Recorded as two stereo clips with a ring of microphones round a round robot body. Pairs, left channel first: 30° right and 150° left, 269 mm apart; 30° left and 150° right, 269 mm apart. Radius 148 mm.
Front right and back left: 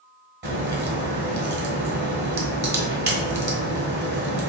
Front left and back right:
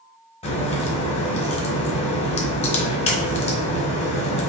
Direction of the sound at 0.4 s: 100° left.